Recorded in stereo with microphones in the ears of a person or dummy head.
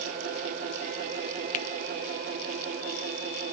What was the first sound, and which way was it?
A finger snap, 40° left (ahead or behind).